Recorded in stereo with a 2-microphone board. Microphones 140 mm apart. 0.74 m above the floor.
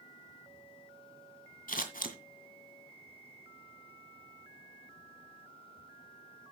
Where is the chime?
I don't hear a chime.